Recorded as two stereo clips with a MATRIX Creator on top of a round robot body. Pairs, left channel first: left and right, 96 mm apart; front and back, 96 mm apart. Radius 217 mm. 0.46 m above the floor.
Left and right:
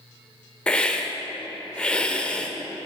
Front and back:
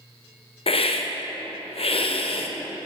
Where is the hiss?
10° left, 1.7 m.